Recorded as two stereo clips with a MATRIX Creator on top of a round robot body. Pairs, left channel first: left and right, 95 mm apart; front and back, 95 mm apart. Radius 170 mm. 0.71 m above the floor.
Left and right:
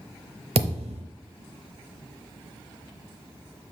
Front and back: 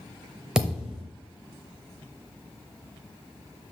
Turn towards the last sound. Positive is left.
turn(degrees=-95)